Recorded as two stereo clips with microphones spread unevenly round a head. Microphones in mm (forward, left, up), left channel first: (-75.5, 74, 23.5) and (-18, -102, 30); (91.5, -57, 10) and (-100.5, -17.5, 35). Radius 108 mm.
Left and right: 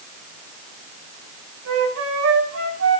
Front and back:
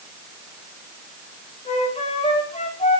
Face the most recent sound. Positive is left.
turn(degrees=-70)